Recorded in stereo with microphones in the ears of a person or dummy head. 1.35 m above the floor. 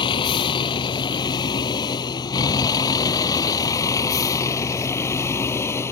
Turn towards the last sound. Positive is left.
turn(degrees=15)  # may be behind; listen again after turning